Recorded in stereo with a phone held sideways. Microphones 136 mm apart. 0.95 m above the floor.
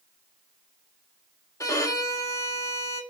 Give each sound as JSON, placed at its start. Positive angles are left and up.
{"t": 1.6, "sound": "a violin", "side_deg": 25, "distance_m": 1.5}